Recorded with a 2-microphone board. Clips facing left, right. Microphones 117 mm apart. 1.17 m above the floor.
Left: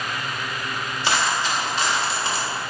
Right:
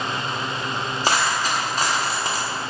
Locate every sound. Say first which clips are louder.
1.0 s a dropped coin: right 1 dB; 45° right (ahead or behind), 0.7 m